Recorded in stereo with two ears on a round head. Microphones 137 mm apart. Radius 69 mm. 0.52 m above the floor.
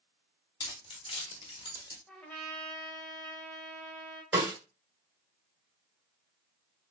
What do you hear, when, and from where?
0.6 s keys jangling: 25° left (ahead or behind), 0.8 m
2.1 s a trumpet: 5° left (ahead or behind), 0.8 m
4.3 s a snare drum: 15° right (ahead or behind), 1.5 m